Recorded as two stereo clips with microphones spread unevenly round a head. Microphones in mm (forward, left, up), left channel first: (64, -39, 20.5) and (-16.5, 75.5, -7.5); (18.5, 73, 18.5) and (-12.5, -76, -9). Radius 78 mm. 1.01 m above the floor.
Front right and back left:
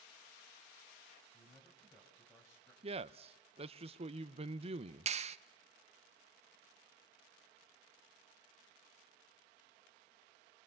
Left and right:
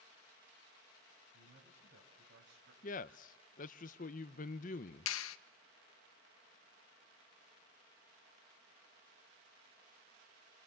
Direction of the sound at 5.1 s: 80° left.